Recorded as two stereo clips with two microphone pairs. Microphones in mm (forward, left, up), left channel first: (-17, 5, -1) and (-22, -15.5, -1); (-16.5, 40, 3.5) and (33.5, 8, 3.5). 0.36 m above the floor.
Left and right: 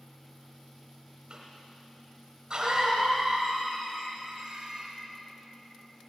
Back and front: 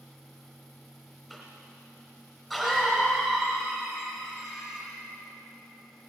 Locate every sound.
1.3 s a cough: 125° right, 2 m